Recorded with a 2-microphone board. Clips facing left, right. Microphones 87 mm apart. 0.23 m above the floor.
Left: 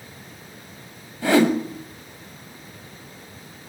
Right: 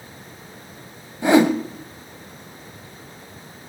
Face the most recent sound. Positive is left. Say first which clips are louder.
# right 2 dB
turn(degrees=-20)  # may be behind; listen again after turning